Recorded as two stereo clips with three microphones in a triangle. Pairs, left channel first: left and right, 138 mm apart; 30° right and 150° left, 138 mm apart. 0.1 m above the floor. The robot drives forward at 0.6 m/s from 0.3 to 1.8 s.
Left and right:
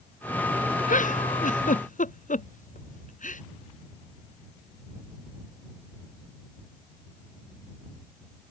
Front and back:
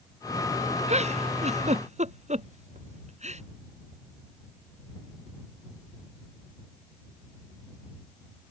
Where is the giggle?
110° left; by 3.4 s 115° left.